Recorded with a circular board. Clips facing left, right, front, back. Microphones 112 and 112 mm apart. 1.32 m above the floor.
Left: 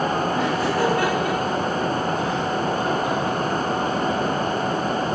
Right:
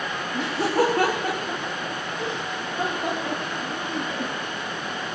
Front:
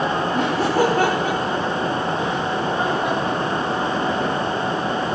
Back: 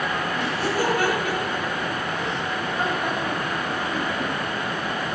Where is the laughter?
30° right, 4.5 m; by 4.3 s 110° right, 4 m.